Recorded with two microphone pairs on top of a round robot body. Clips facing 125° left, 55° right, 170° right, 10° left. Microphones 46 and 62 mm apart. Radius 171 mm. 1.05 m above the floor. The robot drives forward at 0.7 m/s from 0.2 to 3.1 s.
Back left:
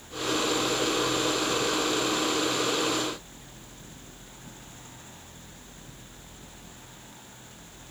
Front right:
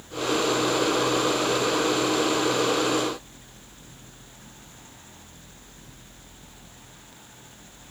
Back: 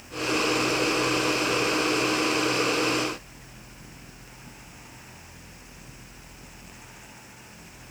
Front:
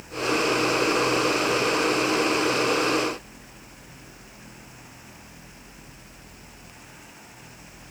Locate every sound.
Only background noise.